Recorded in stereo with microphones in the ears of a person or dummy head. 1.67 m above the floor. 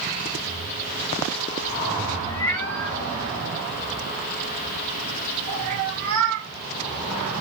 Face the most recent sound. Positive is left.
turn(degrees=-50)  # may be behind; listen again after turning